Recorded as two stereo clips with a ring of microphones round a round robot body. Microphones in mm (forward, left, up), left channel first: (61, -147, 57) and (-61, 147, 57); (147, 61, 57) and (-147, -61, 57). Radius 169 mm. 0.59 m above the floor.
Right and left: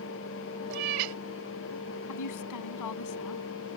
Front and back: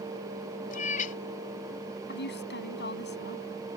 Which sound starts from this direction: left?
A cat meowing, at 0.7 s.